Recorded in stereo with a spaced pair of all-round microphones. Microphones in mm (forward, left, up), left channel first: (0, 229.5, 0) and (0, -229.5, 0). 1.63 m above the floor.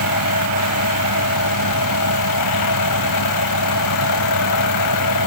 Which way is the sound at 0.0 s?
45° left (ahead or behind).